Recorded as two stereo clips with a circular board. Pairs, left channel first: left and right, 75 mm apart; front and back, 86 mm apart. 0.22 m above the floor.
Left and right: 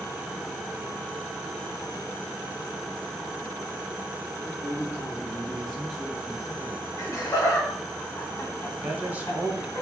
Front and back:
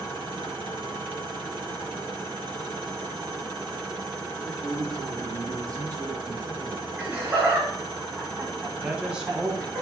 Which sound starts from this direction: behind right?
A man speaking, at 8.8 s.